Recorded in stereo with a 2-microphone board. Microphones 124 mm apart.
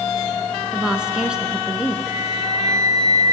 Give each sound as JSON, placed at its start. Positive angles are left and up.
{"t": 0.7, "sound": "a woman speaking", "side_deg": -5, "distance_m": 1.4}
{"t": 2.1, "sound": "a flute", "side_deg": 0, "distance_m": 5.5}